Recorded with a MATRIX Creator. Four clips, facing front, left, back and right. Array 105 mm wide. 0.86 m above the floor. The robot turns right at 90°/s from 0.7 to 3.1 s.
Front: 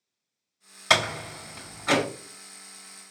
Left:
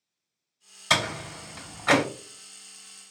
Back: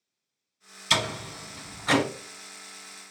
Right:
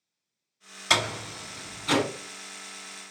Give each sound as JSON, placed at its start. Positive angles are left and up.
{"t": 0.9, "sound": "a door slam", "azimuth_deg": -10, "distance_m": 1.8}